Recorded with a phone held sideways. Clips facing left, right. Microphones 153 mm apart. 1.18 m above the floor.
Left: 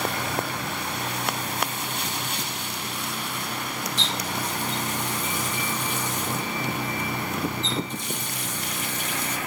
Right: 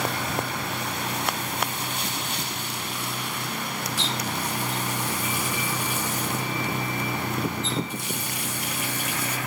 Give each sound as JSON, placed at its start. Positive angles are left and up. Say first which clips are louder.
{"t": 4.0, "sound": "a running tap", "louder": "right 1 dB", "side_deg": -10, "distance_m": 1.4}